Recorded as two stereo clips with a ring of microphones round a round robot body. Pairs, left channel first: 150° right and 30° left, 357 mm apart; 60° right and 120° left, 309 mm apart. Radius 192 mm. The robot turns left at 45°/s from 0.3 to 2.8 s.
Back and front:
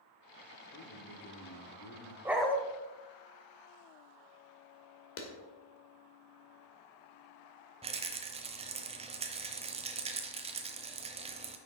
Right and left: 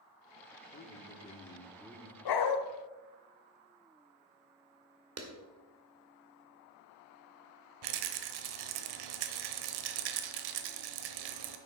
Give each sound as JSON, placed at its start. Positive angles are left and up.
{"t": 0.7, "sound": "a man speaking", "azimuth_deg": -105, "distance_m": 1.8}
{"t": 2.2, "sound": "a dog barking", "azimuth_deg": -55, "distance_m": 1.1}
{"t": 5.2, "sound": "a clap", "azimuth_deg": 160, "distance_m": 2.0}
{"t": 7.8, "sound": "a rattle", "azimuth_deg": 105, "distance_m": 0.9}